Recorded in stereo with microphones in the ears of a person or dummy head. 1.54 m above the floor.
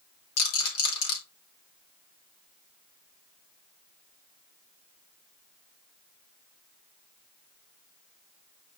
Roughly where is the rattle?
Left.